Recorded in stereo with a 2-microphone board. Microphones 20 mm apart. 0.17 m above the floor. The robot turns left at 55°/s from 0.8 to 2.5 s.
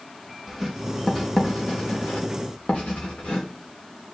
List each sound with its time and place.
0.5 s writing: 5° right (ahead or behind), 4 m; by 3.5 s 90° left, 4 m